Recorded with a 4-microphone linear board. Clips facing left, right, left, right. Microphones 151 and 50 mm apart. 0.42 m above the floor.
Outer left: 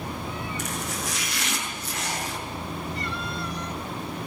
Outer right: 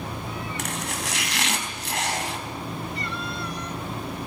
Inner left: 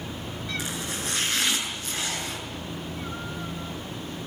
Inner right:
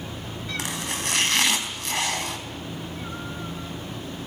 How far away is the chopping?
About 3.5 m.